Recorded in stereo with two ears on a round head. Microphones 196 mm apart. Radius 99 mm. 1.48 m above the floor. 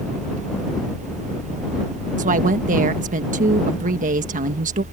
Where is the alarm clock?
I don't hear an alarm clock.